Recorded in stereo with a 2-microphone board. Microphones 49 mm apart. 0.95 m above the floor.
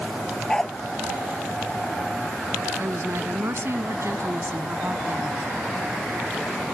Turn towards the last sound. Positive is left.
turn(degrees=-60)  # may be behind; listen again after turning